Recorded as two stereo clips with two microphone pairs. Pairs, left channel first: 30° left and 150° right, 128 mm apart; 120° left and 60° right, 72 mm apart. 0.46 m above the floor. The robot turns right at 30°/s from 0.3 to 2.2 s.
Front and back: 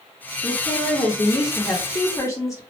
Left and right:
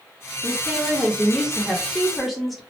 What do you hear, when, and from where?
0.4 s a woman speaking: 25° right, 1.0 m; by 2.6 s 25° left, 1.0 m